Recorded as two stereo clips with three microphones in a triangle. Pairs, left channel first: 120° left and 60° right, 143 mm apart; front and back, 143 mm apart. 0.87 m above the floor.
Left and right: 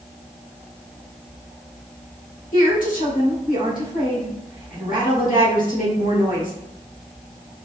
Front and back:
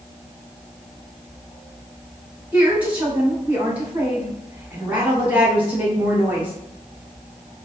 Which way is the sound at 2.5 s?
100° left.